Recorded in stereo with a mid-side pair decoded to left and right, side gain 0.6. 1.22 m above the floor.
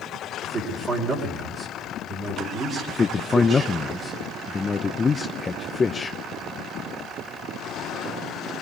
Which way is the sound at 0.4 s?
35° right.